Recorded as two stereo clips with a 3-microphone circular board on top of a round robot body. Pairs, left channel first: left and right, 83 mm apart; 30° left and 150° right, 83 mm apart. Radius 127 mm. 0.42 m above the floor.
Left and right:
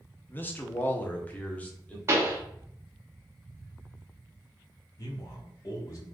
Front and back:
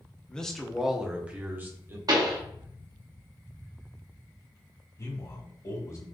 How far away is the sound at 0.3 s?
About 1.1 m.